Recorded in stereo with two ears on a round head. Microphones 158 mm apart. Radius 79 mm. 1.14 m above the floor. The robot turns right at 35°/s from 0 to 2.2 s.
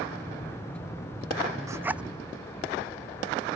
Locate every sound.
1.7 s a zipper: 20° right (ahead or behind); by 2.0 s 5° right (ahead or behind)